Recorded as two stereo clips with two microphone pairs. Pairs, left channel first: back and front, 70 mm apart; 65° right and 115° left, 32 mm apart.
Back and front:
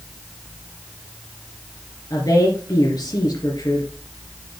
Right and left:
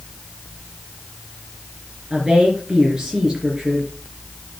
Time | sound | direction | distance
2.1 | a woman speaking | 175° right | 3 m